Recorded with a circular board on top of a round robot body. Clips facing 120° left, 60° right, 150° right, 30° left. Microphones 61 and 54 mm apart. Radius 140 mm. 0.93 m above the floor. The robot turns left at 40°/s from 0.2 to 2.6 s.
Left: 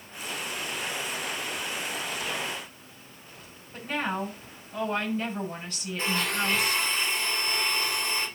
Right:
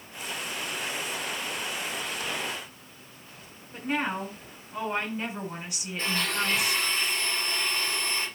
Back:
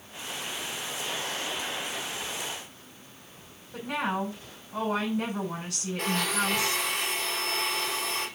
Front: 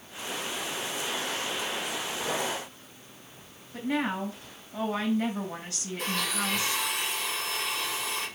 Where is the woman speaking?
140° right, 6.5 m.